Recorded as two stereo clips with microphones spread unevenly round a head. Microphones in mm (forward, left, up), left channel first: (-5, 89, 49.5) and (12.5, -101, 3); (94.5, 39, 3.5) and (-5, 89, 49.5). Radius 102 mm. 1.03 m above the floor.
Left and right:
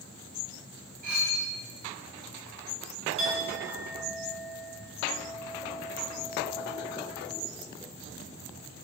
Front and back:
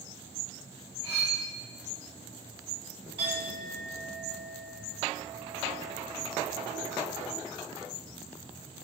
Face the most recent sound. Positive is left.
turn(degrees=-145)